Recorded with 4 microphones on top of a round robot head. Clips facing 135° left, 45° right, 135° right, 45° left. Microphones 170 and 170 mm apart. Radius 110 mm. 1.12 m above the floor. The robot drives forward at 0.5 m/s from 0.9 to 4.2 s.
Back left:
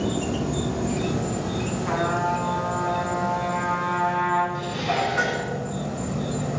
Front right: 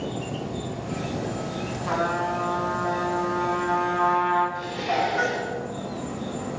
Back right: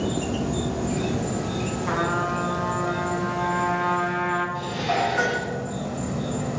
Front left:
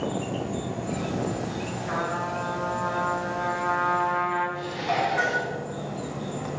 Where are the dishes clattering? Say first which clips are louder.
Even, back right 2 dB; 175° left, 8.5 m.